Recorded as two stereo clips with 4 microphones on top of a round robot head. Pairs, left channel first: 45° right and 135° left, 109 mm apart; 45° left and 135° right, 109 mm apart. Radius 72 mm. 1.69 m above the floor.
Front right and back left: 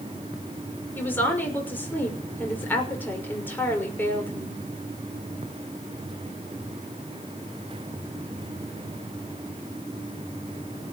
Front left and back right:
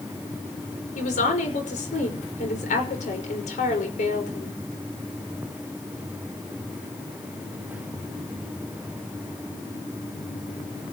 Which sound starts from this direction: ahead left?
A woman speaking, at 0.9 s.